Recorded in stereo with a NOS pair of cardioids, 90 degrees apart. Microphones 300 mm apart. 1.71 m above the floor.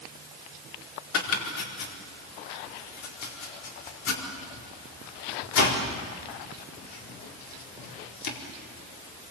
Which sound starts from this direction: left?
Chopping, at 1.1 s.